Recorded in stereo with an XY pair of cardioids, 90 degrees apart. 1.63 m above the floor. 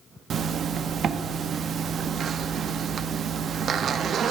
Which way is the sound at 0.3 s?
65° right.